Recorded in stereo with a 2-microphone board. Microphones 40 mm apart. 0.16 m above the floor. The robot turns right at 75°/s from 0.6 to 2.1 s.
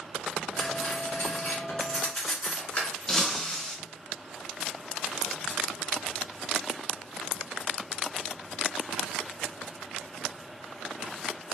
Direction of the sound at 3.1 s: 15° left (ahead or behind).